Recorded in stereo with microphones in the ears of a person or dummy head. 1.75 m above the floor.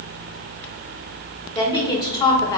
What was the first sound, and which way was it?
A woman speaking, 20° left (ahead or behind).